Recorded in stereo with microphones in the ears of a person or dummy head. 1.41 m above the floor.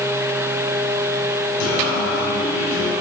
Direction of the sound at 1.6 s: 70° left (ahead or behind).